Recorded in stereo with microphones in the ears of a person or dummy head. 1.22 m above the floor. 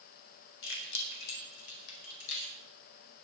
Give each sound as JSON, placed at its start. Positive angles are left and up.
{"t": 0.6, "sound": "keys jangling", "side_deg": 70, "distance_m": 3.5}